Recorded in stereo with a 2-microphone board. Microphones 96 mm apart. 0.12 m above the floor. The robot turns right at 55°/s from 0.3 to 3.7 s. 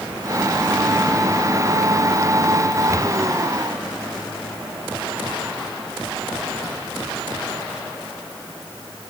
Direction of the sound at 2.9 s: 30° left (ahead or behind).